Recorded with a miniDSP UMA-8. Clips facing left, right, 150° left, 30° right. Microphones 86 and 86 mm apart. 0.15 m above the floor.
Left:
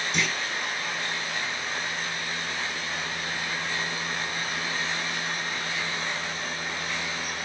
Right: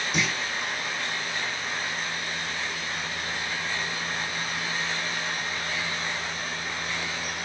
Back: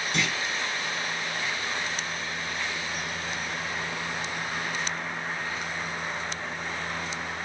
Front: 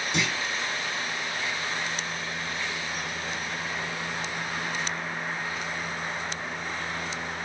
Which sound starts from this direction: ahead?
A clunk, at 0.1 s.